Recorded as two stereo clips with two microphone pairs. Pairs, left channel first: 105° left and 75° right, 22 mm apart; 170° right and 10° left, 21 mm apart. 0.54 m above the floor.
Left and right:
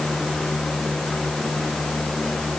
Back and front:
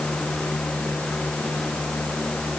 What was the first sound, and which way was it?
Only background noise.